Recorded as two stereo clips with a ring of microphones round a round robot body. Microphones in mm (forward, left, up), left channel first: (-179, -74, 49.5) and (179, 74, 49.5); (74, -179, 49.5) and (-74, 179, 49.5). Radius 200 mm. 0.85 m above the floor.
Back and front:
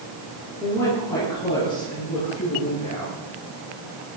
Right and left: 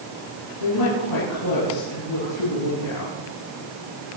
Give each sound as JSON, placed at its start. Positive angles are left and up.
{"t": 0.6, "sound": "a woman speaking", "azimuth_deg": -75, "distance_m": 10.0}